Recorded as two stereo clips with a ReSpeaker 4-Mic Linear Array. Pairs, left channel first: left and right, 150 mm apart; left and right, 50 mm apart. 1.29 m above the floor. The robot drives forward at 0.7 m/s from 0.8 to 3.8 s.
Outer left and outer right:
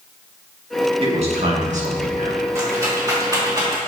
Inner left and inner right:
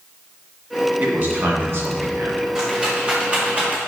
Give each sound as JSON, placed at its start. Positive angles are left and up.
{"t": 1.0, "sound": "a man speaking", "side_deg": -40, "distance_m": 2.0}
{"t": 2.5, "sound": "a rattle", "side_deg": -20, "distance_m": 2.5}